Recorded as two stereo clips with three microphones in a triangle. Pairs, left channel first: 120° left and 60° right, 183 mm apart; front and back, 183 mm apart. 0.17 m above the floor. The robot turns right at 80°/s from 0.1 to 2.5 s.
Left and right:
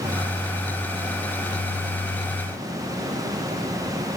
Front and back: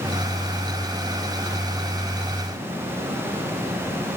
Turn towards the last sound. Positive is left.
No sound to turn to.